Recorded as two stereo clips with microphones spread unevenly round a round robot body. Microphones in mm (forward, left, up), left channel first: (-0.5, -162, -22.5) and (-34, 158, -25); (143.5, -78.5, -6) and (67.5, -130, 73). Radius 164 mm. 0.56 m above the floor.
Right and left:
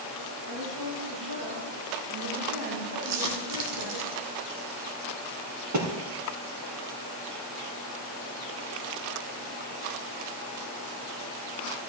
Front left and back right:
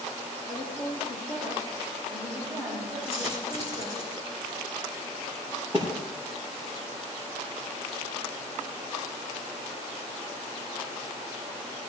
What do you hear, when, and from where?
0.5 s a woman speaking: 125° left, 6.5 m; by 4.0 s 130° left, 8.5 m
3.0 s a dropped coin: 120° left, 3 m
5.7 s a thud: 135° left, 4 m